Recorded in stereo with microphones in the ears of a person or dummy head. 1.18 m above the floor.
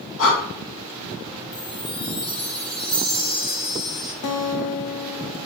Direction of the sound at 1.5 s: 35° left (ahead or behind).